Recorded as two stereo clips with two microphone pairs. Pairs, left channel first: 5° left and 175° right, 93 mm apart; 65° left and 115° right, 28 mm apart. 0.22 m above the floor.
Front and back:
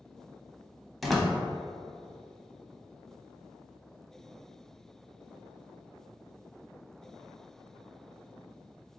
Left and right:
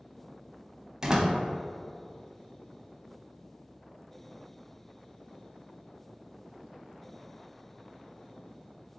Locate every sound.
1.0 s a door slam: 85° right, 0.7 m